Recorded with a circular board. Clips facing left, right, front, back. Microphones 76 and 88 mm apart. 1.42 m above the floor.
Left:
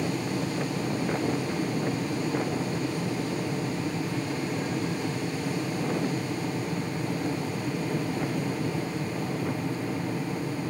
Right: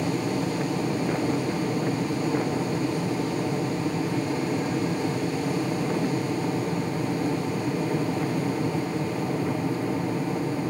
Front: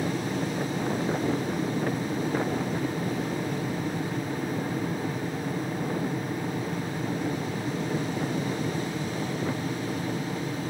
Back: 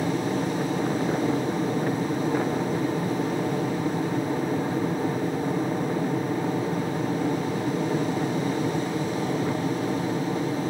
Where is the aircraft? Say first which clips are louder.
Right 3 dB, back 3 dB; 145° right.